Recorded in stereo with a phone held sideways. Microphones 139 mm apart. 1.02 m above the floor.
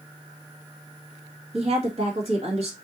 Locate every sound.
1.5 s a woman speaking: 50° right (ahead or behind), 1.6 m